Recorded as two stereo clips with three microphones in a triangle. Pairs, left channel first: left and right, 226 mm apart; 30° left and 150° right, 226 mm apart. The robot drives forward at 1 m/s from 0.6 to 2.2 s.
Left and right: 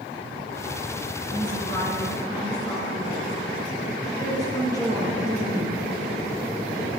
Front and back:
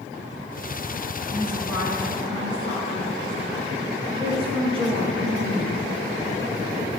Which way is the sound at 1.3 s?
125° left.